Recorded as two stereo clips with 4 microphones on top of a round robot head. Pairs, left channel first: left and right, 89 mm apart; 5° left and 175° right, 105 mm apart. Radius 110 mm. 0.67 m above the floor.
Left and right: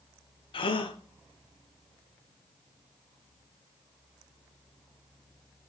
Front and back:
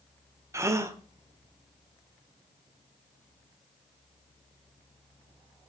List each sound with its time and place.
0.5 s a gasp: 120° left, 1.5 m